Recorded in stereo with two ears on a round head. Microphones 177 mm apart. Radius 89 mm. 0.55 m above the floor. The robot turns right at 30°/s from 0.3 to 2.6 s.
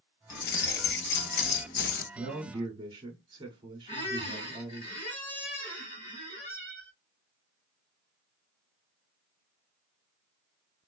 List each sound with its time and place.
0.3 s keys jangling: 65° left, 0.6 m; by 2.0 s 115° left, 0.6 m
2.1 s a man speaking: 30° right (ahead or behind), 1.2 m; by 4.9 s 25° right (ahead or behind), 1.2 m
3.9 s a squeak: 40° left (ahead or behind), 1.6 m